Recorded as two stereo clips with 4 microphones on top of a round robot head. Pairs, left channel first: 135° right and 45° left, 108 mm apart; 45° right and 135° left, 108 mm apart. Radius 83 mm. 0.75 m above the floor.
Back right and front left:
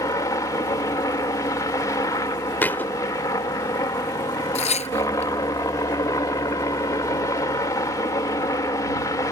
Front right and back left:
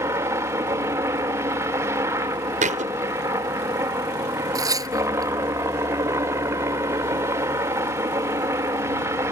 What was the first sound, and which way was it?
A helicopter, 175° right.